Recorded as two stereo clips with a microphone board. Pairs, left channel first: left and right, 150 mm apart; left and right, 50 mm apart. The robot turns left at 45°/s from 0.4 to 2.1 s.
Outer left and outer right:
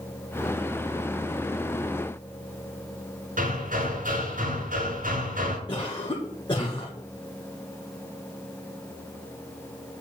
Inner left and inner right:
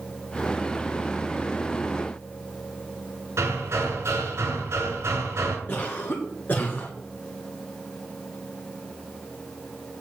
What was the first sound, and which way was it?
Hammering, 65° right (ahead or behind).